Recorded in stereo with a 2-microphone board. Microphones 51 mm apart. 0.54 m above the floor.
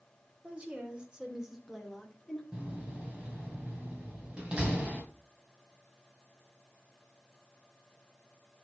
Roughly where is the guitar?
I don't hear a guitar.